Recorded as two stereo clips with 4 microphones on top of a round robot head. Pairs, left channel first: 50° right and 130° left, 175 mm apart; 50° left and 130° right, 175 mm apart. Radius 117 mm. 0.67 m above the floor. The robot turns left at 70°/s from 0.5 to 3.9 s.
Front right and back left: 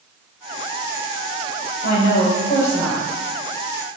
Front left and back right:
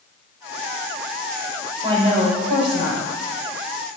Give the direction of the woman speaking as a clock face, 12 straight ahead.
2 o'clock.